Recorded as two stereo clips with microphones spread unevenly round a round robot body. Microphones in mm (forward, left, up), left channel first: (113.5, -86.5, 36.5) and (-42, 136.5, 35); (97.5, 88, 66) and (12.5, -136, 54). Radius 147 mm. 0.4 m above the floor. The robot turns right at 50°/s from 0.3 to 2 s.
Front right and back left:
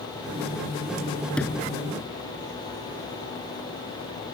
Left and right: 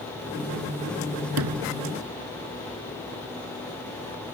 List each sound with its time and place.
1.4 s a sliding door: 140° right; by 1.8 s 120° right